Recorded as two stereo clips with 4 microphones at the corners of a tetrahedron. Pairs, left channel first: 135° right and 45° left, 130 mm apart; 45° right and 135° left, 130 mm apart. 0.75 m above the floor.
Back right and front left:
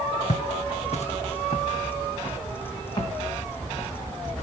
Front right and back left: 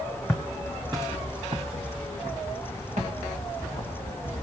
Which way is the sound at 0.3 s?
140° right.